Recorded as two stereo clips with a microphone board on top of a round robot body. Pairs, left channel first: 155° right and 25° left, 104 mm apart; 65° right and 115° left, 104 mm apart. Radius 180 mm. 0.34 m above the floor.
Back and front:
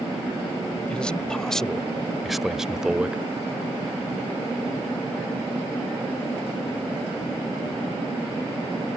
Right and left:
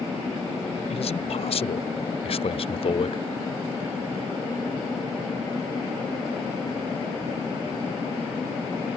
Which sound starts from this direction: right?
A man speaking, at 0.9 s.